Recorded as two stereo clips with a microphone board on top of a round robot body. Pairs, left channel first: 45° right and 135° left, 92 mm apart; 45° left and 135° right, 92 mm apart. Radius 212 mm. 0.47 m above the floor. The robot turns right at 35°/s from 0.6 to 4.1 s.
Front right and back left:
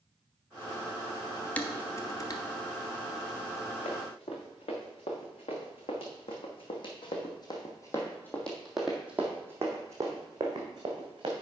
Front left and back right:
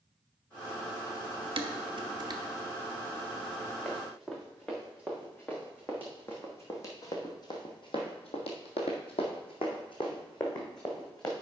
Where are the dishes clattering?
120° right, 1.0 m; by 2.4 s 90° right, 1.0 m.